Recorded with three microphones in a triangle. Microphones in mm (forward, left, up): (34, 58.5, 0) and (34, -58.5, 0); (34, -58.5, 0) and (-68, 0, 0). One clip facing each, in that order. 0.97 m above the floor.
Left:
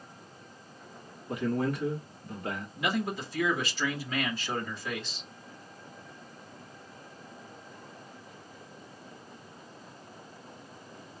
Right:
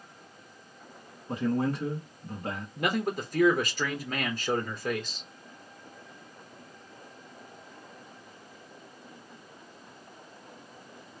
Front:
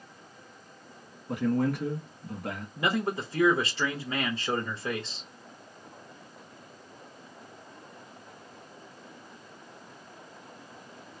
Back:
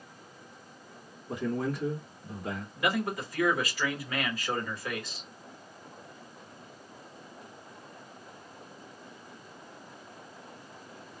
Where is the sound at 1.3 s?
35° right, 1.8 m.